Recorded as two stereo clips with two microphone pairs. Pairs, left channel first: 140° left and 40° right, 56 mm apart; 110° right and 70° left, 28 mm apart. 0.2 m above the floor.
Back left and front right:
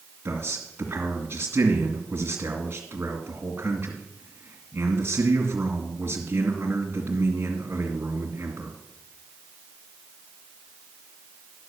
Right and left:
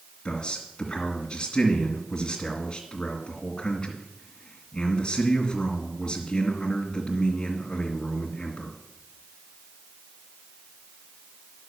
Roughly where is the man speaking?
Ahead right.